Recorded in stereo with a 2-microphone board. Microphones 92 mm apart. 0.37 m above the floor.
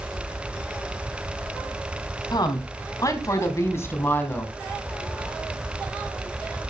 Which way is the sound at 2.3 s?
50° left (ahead or behind).